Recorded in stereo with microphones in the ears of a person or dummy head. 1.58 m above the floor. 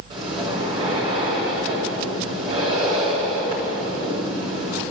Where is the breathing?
25° right (ahead or behind), 8 m.